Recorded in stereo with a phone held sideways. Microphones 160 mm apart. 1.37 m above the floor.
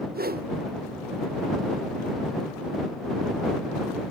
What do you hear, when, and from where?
0.1 s a whoosh: 70° right (ahead or behind)